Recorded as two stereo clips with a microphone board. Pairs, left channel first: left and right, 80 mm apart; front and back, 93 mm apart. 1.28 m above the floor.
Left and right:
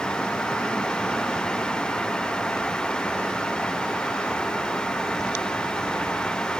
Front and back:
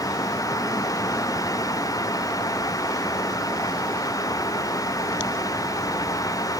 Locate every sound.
Only background noise.